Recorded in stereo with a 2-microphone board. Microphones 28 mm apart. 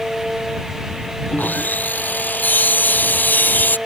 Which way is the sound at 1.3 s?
80° left.